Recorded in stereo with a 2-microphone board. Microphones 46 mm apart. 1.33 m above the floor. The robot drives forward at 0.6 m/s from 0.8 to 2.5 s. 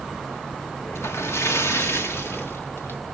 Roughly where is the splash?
Left.